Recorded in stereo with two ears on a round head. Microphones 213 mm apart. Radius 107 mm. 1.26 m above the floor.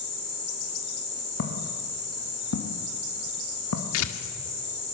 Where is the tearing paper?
65° left (ahead or behind), 1.8 m.